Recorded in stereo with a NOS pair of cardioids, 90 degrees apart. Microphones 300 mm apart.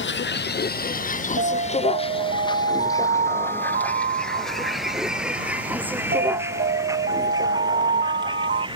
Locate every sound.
0.0 s a vehicle: 35° left; by 8.8 s 15° right
1.4 s an alarm: 30° right